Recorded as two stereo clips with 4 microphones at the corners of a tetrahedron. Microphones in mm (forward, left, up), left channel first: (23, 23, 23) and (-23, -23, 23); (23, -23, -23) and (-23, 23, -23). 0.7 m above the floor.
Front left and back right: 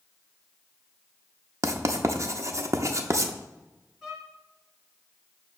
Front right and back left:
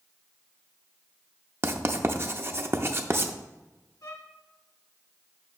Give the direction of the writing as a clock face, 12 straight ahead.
6 o'clock.